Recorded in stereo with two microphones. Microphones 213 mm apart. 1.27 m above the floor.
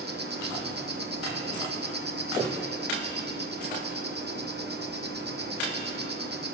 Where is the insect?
50° right (ahead or behind), 0.8 m.